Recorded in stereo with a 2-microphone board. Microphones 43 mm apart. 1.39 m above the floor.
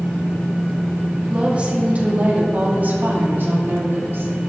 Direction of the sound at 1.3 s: 25° right (ahead or behind).